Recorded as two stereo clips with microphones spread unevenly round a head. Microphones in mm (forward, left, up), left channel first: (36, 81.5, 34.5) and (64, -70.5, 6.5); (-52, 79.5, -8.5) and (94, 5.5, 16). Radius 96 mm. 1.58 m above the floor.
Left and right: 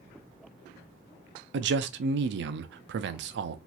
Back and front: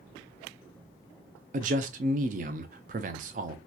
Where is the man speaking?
75° right, 0.5 m.